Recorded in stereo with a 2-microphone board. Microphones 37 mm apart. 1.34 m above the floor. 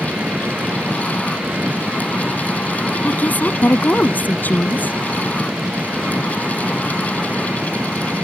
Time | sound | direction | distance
0.0 | an engine running | 60° right (ahead or behind) | ?
3.0 | a woman speaking | 50° left (ahead or behind) | ?